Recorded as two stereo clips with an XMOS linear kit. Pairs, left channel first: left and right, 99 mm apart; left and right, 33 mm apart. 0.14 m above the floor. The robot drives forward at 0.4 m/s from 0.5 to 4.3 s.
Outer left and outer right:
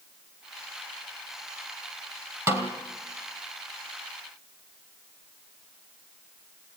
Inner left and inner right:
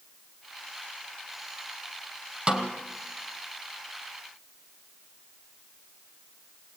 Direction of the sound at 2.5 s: 30° right (ahead or behind).